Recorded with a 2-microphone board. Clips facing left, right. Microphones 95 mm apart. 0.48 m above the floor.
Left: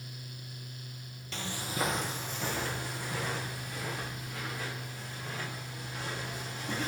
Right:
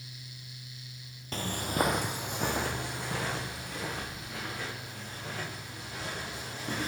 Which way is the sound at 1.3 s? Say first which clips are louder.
Right 5 dB; 40° right (ahead or behind).